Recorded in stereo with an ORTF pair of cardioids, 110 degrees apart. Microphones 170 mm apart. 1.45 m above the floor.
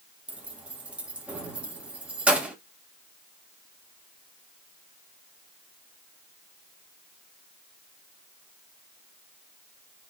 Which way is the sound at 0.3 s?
10° right.